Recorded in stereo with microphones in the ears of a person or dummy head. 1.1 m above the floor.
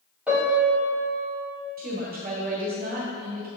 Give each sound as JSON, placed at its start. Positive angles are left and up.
{"t": 0.3, "sound": "a piano", "side_deg": -5, "distance_m": 1.8}
{"t": 1.8, "sound": "a woman speaking", "side_deg": -45, "distance_m": 1.6}